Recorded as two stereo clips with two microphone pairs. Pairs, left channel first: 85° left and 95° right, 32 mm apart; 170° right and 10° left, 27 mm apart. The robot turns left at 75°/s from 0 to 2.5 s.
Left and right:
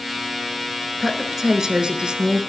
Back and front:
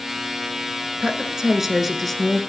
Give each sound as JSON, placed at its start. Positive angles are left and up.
{"t": 1.0, "sound": "a woman speaking", "azimuth_deg": -5, "distance_m": 1.2}